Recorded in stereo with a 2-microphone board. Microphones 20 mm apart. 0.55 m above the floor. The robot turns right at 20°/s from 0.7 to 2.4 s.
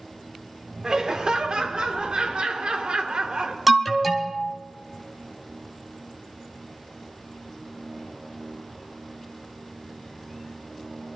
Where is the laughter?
130° right, 1.2 m; by 3.6 s 100° right, 1.2 m.